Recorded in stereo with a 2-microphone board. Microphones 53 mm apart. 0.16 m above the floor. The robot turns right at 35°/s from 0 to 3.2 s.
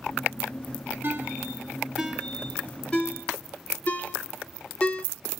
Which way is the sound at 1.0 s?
40° right (ahead or behind).